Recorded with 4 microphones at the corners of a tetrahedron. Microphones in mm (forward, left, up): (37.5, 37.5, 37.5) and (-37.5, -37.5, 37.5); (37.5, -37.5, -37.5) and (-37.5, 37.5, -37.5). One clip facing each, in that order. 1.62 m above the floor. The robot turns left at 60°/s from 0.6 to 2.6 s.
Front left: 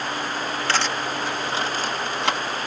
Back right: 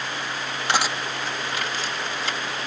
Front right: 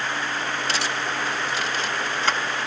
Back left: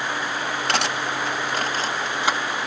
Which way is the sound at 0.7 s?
155° left.